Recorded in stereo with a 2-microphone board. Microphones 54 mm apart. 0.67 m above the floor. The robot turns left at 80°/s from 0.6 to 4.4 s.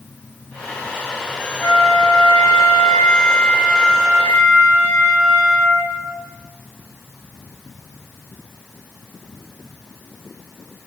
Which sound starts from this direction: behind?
A flute, at 1.6 s.